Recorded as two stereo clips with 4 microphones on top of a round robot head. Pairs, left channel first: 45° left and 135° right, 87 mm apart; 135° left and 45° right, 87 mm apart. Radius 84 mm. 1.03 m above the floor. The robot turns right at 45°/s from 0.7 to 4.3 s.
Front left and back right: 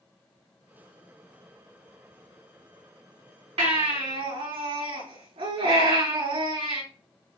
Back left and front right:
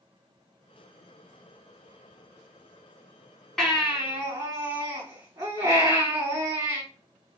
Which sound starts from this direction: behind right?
A baby crying, at 3.6 s.